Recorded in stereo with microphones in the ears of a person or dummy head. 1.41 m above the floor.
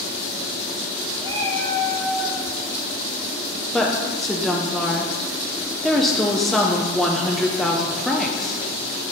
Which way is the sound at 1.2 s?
30° right (ahead or behind).